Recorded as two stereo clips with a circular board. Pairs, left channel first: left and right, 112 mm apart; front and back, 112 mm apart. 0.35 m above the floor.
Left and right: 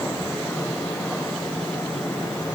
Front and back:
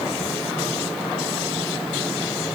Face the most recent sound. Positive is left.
No sound to turn to.